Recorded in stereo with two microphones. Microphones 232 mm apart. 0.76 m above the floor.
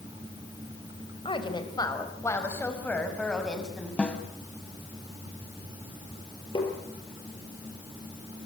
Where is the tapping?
20° left (ahead or behind), 5.5 m.